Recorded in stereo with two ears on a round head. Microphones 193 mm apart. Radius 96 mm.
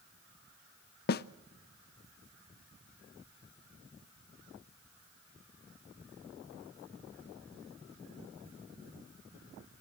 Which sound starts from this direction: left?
A snare drum, at 1.1 s.